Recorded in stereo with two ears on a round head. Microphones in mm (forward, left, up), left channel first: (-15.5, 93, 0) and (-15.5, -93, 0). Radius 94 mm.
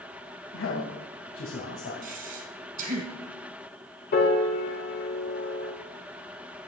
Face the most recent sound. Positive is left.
turn(degrees=45)  # may be behind; listen again after turning